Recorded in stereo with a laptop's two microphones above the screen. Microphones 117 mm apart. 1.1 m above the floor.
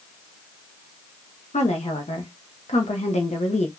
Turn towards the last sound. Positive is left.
turn(degrees=70)  # may be behind; listen again after turning